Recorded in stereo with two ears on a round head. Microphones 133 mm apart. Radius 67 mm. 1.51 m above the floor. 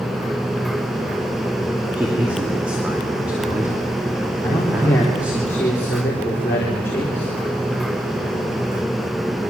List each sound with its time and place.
2.0 s a man speaking: 10° right (ahead or behind), 3 m
4.4 s a man speaking: 15° left (ahead or behind), 3.5 m